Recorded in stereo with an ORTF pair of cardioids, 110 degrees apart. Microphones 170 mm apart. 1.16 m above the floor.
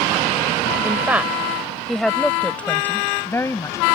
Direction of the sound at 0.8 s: 10° right.